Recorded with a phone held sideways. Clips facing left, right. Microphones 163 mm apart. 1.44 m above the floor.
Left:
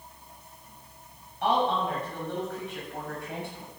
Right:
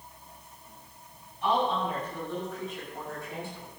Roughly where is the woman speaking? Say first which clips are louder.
Left 2 dB; left.